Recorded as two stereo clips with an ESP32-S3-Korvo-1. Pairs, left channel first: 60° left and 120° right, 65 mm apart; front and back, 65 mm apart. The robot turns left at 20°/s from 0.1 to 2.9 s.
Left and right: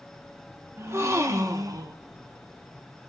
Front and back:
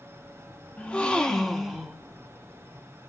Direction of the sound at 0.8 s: 70° right.